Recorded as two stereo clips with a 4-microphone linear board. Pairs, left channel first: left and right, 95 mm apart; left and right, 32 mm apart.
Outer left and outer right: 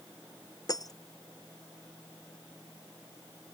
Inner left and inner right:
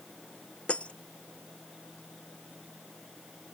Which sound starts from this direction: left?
Breaking glass, at 0.7 s.